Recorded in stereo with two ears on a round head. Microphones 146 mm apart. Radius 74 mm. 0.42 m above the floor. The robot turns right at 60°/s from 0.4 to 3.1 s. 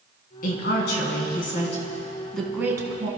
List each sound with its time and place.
0.4 s a woman speaking: 60° left, 4 m; by 3.1 s 140° right, 4 m